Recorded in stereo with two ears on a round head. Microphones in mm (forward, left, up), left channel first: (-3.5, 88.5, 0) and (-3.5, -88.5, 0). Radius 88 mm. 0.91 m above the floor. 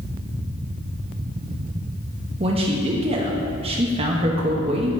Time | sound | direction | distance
2.4 | a man speaking | 30° right (ahead or behind) | 0.8 m